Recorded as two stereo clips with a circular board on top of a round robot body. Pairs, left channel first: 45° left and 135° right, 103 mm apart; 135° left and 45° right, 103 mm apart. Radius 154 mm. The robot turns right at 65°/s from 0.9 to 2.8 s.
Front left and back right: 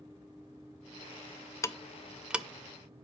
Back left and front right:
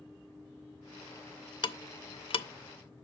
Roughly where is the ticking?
Left.